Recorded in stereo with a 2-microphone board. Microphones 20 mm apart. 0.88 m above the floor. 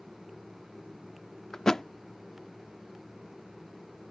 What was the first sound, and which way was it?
A thud, 30° left (ahead or behind).